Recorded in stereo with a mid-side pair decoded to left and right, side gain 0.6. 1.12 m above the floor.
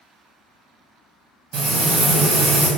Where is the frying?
70° right, 1.3 m.